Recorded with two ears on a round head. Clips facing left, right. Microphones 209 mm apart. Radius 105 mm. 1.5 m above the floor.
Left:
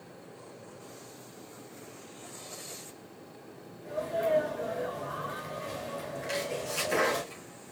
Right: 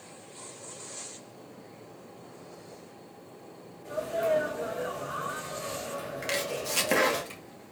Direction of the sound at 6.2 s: 80° right.